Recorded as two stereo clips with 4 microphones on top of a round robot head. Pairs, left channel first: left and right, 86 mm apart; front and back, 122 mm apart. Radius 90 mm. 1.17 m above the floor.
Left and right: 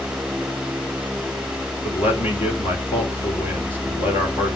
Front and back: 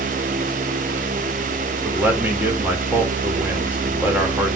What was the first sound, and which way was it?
A man speaking, 105° left.